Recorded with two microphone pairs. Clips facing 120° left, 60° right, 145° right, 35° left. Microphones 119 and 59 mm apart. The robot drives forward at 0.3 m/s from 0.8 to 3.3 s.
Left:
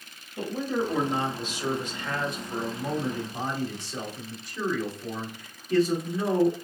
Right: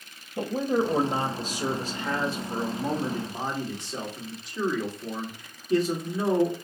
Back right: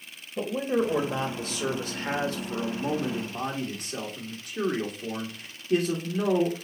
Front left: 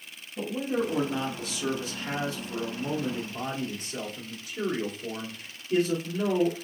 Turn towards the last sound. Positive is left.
turn(degrees=-130)